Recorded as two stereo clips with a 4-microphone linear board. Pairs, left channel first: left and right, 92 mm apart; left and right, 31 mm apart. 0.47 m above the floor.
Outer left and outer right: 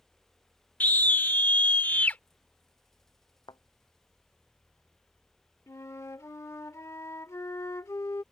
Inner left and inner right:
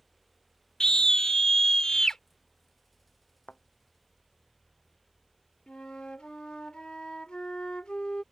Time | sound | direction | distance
0.8 | a scream | 20° left (ahead or behind) | ?
3.5 | a thud | 50° left (ahead or behind) | ?
5.7 | a flute | 30° left (ahead or behind) | ?